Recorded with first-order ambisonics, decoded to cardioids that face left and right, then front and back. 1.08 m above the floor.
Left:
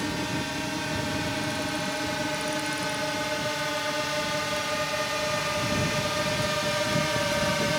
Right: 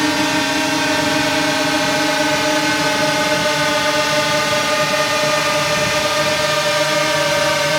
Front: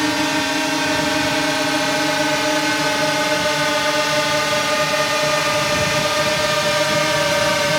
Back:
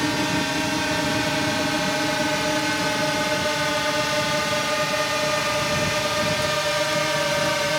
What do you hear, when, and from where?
0.0 s a drone: 75° right; by 7.8 s 65° right